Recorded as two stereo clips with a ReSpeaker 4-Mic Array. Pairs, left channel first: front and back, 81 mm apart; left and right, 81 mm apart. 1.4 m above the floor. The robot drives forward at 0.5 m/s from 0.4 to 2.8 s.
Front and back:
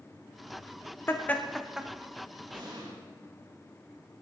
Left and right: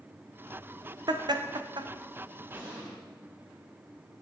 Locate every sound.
1.1 s laughter: 60° right, 0.6 m; by 1.9 s 100° right, 0.6 m
2.5 s an explosion: 165° right, 3.5 m